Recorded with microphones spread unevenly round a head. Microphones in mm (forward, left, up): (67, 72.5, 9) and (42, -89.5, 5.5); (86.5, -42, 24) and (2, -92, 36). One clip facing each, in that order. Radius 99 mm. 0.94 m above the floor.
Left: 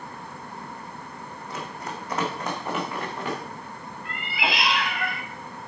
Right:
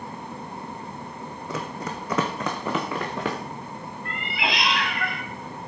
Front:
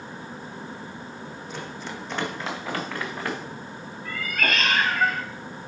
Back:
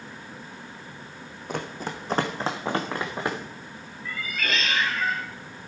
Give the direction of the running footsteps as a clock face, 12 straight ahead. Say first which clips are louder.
Right 4 dB, back 6 dB; 4 o'clock.